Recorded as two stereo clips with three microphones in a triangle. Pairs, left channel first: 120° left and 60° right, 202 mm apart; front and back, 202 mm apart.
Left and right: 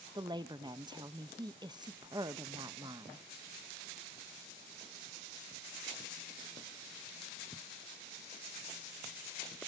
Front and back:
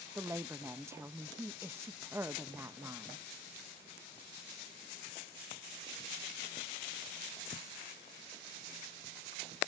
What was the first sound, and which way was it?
A woman speaking, 115° right.